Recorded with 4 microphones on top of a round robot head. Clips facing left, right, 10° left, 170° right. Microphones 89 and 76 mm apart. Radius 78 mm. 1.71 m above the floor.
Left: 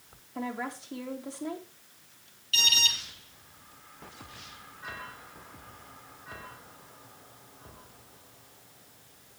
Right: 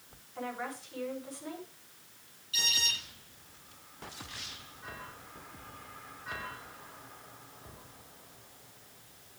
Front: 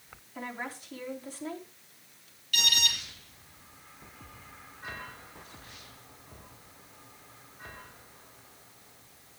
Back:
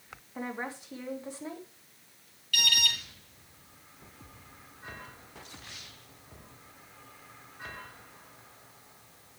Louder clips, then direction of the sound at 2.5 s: Left 5 dB, back 1 dB; 75° left.